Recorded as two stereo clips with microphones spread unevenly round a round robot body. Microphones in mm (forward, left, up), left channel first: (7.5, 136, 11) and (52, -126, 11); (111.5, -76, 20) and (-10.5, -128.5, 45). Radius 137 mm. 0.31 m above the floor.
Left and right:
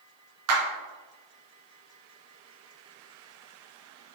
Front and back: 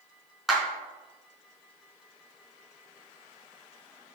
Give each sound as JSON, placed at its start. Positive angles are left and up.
{"t": 0.5, "sound": "a clap", "azimuth_deg": -65, "distance_m": 3.0}